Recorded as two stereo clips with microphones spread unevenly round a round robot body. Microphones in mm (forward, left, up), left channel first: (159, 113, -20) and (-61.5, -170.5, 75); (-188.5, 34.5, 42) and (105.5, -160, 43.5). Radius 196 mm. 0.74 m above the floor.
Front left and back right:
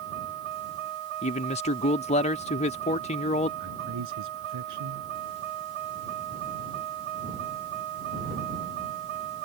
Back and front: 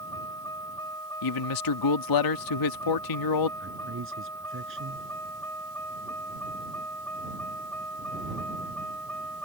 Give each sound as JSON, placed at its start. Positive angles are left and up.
{"t": 0.0, "sound": "a vehicle", "azimuth_deg": -135}
{"t": 1.2, "sound": "a man speaking", "azimuth_deg": 120}
{"t": 3.6, "sound": "a man speaking", "azimuth_deg": -90}